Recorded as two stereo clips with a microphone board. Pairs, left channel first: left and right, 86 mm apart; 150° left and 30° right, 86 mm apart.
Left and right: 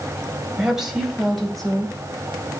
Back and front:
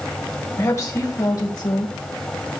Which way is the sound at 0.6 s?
170° right.